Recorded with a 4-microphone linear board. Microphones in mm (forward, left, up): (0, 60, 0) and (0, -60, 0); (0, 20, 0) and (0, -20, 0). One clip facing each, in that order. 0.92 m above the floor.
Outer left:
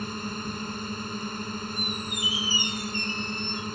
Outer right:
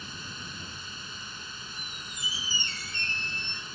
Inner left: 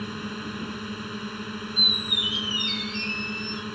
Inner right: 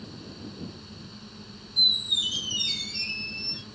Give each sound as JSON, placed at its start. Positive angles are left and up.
{"t": 0.0, "sound": "a drone", "side_deg": 55}
{"t": 1.8, "sound": "a squeak", "side_deg": 15}